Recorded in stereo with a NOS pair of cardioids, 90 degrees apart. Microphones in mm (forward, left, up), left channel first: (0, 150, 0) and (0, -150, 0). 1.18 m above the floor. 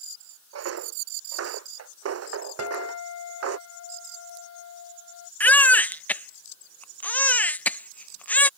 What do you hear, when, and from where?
0.5 s footsteps: 55° right
2.6 s a guitar: 60° left
5.4 s a baby crying: 5° left